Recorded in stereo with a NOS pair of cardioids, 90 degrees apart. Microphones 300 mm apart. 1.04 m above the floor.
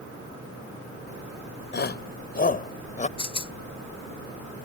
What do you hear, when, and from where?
1.7 s a shout: 35° left; by 3.1 s 25° left
3.2 s a rattle: 20° left